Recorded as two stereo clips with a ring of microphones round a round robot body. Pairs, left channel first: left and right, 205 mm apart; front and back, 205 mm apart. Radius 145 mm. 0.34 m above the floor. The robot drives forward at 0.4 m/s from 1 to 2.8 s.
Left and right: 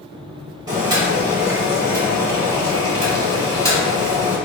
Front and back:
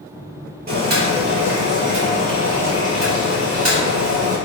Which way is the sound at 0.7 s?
160° right.